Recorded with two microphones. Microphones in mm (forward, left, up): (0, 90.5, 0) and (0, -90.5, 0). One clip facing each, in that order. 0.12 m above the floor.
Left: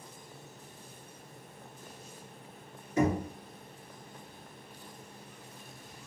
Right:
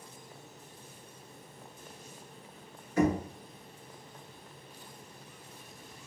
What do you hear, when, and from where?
3.0 s knocking: 25° left (ahead or behind), 1.2 m